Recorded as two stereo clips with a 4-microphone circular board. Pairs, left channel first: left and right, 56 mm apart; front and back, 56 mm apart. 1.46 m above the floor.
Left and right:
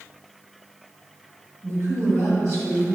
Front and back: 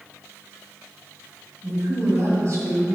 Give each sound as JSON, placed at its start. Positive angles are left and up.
{"t": 1.6, "sound": "a woman speaking", "azimuth_deg": -125, "distance_m": 2.0}